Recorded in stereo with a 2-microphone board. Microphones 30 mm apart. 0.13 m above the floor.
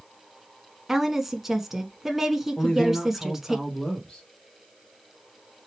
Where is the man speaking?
30° left (ahead or behind), 3 m.